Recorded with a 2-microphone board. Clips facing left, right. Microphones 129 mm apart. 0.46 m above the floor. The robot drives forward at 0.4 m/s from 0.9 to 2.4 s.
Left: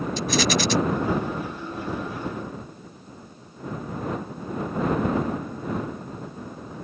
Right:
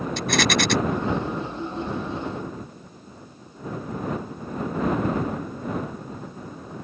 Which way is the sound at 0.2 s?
65° right (ahead or behind).